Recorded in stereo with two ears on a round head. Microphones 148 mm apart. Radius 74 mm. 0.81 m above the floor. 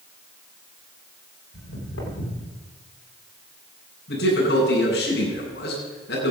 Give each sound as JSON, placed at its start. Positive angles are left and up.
{"t": 1.5, "sound": "footsteps", "side_deg": 85, "distance_m": 9.0}
{"t": 4.1, "sound": "a man speaking", "side_deg": 70, "distance_m": 9.0}